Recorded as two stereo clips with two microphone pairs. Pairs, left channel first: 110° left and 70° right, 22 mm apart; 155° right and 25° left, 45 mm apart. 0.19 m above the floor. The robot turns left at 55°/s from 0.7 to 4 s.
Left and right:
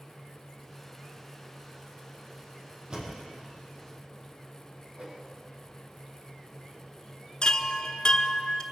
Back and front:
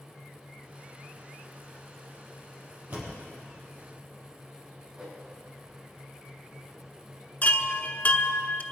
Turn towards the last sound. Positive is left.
turn(degrees=160)